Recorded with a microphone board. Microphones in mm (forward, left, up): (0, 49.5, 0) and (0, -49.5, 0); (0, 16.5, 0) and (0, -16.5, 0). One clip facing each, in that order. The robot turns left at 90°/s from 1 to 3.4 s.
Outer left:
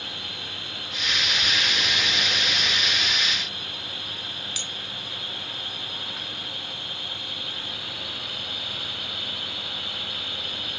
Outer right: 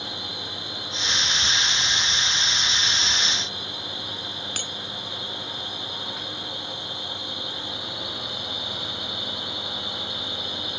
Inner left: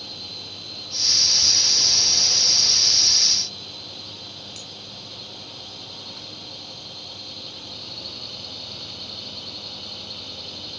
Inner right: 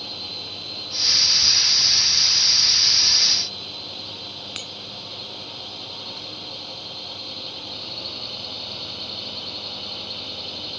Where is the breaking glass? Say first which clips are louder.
Outer right 4 dB, inner right 5 dB; 50° right (ahead or behind).